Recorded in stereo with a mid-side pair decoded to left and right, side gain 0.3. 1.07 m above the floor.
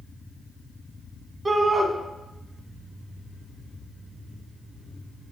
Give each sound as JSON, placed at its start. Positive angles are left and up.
{"t": 1.4, "sound": "a shout", "azimuth_deg": -40, "distance_m": 1.0}